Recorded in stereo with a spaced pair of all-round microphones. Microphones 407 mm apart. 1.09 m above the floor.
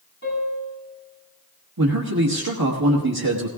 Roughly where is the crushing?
No crushing in this recording.